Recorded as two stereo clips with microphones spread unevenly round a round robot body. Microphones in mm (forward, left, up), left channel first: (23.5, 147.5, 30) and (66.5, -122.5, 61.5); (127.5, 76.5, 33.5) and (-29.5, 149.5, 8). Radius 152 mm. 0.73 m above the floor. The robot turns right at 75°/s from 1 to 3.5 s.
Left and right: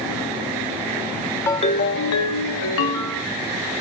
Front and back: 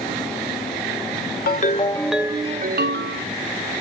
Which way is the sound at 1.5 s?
15° left.